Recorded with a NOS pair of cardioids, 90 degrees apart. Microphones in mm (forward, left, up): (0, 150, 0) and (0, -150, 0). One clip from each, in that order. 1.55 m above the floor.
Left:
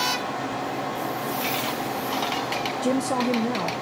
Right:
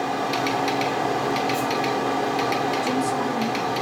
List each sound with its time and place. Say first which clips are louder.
0.0 s a fan: right 2 dB; 25° right, 0.8 m
2.8 s a woman speaking: right 1 dB; 45° left, 0.6 m